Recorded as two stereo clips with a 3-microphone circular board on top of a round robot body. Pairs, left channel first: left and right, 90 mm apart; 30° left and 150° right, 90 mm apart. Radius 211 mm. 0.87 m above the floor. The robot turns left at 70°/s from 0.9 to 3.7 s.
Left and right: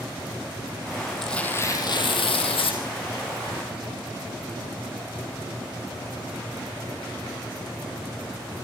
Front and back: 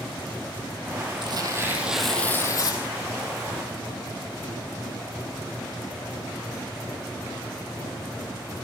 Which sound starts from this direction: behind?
Tearing paper, at 1.2 s.